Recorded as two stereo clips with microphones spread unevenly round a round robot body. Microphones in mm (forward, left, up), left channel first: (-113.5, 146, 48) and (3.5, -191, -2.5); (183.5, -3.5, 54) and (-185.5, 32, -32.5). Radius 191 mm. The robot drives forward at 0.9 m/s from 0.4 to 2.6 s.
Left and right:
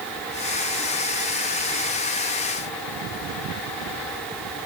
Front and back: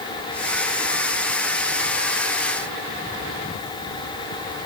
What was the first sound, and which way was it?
Only background noise.